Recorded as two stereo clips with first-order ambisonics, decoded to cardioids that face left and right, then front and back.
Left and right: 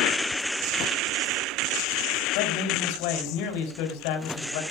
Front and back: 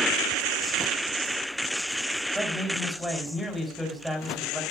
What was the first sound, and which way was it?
A man speaking, 95° left.